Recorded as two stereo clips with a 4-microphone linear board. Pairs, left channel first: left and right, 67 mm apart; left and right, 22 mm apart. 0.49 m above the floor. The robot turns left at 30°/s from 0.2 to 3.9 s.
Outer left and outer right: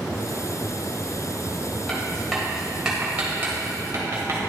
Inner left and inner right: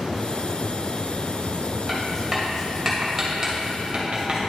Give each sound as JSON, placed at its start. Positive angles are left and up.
{"t": 1.9, "sound": "writing", "side_deg": 15, "distance_m": 1.8}